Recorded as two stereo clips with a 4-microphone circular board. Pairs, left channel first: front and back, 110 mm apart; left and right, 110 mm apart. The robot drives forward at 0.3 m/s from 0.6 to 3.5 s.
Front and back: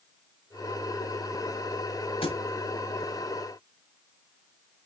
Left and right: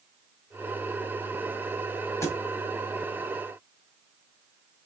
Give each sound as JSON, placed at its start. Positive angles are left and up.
{"t": 2.2, "sound": "a thud", "azimuth_deg": 25, "distance_m": 1.5}